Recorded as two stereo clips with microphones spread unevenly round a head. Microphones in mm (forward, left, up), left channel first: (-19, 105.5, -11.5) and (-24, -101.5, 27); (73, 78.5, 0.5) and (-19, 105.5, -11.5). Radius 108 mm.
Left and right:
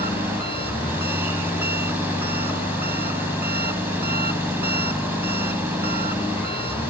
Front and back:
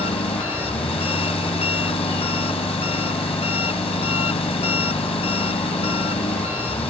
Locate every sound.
0.0 s an engine running: 15° right